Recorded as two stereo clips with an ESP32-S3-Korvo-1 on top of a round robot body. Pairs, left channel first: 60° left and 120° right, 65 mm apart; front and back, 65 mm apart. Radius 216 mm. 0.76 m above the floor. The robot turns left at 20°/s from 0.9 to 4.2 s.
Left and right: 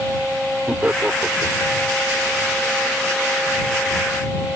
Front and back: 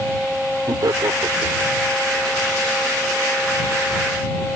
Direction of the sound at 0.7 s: 175° left.